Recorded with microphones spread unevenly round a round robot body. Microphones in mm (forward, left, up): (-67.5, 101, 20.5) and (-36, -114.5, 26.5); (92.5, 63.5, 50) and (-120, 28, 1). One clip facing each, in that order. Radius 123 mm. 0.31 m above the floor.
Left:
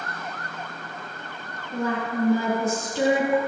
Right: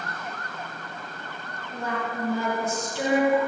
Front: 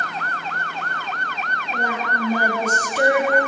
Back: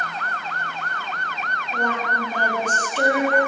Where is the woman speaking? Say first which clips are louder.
Left 5 dB, back 1 dB; 95° left, 9.5 m; by 3.4 s 90° left, 8.5 m.